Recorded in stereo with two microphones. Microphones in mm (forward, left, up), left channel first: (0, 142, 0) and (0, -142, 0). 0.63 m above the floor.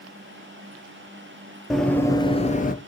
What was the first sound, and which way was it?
Running footsteps, centre (ahead or behind).